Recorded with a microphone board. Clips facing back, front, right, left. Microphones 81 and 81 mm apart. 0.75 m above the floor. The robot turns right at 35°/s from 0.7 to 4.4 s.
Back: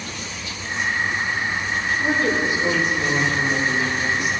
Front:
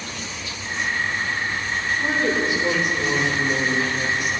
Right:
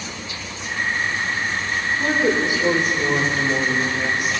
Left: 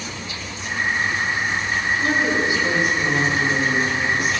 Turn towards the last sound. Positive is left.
turn(degrees=-15)